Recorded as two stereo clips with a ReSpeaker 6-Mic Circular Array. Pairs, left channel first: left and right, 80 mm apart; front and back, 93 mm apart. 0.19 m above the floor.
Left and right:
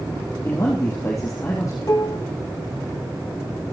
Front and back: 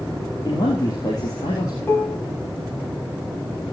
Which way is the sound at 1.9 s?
60° left.